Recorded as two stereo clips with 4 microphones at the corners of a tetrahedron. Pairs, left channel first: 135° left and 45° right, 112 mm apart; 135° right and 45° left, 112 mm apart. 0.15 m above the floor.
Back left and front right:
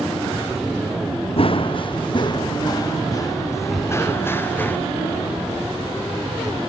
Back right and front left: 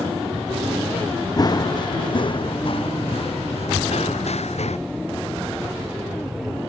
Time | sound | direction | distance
1.4 | running footsteps | 170° left | ?